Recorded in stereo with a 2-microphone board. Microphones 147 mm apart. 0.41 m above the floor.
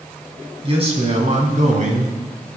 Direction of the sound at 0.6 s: 35° right (ahead or behind).